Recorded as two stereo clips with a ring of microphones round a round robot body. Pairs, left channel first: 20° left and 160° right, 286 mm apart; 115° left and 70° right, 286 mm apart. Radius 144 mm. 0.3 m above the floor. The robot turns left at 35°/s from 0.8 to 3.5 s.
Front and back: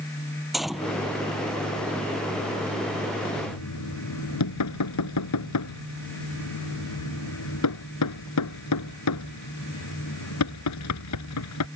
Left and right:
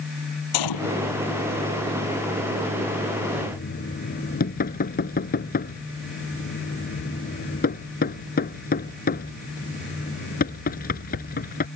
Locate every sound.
0.5 s a gunshot: 115° left; by 1.0 s 105° left
3.4 s knocking: 55° left; by 11.7 s 50° left